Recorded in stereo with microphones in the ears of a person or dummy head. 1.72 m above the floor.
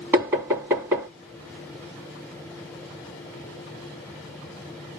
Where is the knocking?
10° right (ahead or behind), 2.5 m.